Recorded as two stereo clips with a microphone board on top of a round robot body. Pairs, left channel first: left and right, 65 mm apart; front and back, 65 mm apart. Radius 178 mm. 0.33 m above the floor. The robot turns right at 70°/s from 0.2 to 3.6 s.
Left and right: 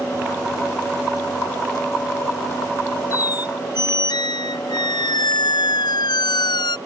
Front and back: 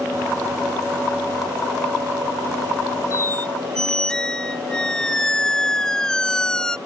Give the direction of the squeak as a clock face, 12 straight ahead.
10 o'clock.